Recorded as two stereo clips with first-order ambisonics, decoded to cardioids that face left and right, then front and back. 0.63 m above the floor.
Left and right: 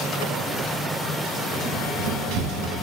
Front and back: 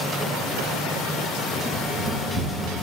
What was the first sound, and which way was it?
Running footsteps, 95° right.